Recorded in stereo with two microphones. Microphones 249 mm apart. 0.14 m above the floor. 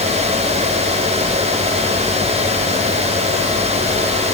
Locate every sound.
Only background noise.